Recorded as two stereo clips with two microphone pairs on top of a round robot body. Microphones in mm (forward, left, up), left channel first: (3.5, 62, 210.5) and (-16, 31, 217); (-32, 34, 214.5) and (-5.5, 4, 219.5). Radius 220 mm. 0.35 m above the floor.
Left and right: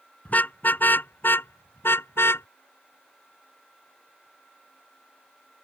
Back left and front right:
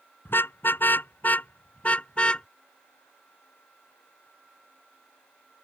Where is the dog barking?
No dog barking in this recording.